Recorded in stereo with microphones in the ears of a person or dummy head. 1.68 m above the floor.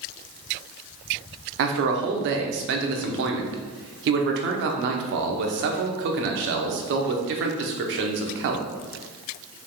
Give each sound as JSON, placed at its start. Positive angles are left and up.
{"t": 1.6, "sound": "a man speaking", "side_deg": -60, "distance_m": 0.8}